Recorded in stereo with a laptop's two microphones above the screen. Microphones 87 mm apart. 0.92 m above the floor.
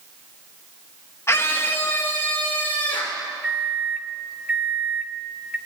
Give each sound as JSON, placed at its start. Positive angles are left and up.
{"t": 1.3, "sound": "a scream", "side_deg": 30, "distance_m": 0.7}
{"t": 3.4, "sound": "a microwave", "side_deg": -15, "distance_m": 2.5}